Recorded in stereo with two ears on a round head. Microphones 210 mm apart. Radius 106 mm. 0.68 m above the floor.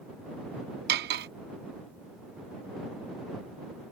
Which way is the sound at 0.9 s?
45° right (ahead or behind).